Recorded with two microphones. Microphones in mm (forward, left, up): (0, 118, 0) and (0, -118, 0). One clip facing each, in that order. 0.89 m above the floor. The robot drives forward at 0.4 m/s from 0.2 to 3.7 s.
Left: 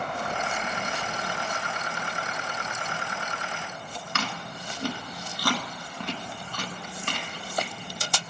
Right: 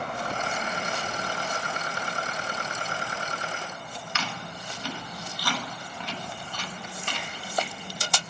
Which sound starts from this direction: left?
Chewing, at 4.2 s.